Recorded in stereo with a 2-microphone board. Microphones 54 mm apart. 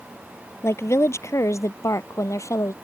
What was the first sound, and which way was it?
A woman speaking, 55° left (ahead or behind).